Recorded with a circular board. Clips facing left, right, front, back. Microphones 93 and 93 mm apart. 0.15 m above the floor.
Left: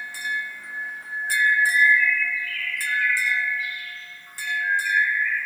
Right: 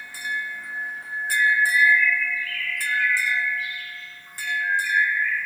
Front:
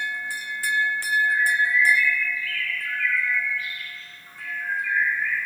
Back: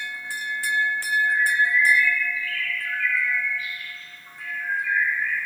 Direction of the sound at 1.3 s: 105° right.